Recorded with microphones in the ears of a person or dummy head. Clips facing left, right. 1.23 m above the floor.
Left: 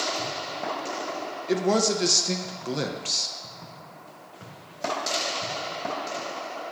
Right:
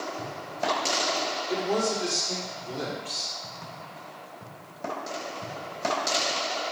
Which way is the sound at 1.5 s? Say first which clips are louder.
Left 5 dB; 75° left (ahead or behind).